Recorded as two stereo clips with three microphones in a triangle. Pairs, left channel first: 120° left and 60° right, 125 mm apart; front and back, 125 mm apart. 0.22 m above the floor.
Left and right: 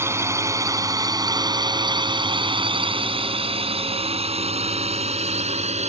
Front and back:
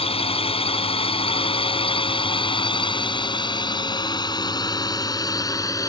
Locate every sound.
0.0 s a drone: 5° left; by 5.9 s 60° right